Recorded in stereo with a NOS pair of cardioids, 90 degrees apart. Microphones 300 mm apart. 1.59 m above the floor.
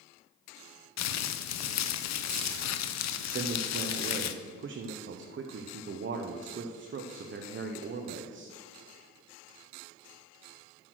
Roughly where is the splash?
No splash in this recording.